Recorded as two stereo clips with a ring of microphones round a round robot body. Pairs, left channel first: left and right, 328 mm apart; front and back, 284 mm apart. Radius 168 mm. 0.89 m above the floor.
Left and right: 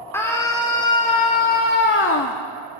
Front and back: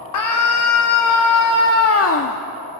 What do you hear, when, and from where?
0.1 s a scream: 5° left, 3 m; by 2.4 s 45° left, 1.8 m